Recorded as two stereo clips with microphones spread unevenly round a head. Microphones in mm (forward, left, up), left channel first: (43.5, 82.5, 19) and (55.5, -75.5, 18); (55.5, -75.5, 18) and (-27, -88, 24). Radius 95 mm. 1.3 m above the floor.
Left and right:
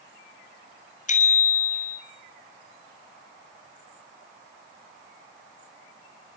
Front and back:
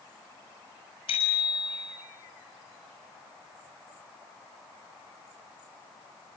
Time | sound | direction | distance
1.1 | a bicycle bell | 55° left | 6 m